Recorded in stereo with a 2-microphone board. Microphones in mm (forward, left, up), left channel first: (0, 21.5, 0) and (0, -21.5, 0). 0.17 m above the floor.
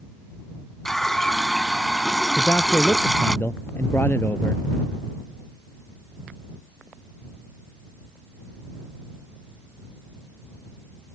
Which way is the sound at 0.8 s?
10° left (ahead or behind).